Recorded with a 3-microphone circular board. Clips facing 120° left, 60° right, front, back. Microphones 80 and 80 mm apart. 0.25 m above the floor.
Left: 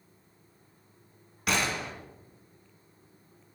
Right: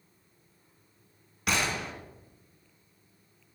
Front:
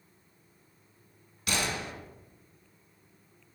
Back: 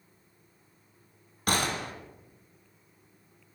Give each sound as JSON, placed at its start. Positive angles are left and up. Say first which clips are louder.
{"t": 1.5, "sound": "a gunshot", "louder": "even, back 3 dB", "azimuth_deg": -150, "distance_m": 2.0}